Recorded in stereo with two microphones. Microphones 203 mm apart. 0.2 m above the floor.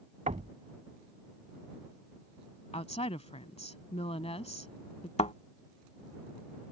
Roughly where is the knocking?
Right.